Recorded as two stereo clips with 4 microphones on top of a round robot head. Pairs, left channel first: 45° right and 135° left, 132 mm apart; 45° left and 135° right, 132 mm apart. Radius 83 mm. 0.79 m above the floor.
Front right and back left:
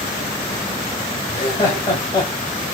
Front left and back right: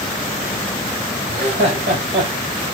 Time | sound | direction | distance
1.3 | laughter | 100° right | 4 m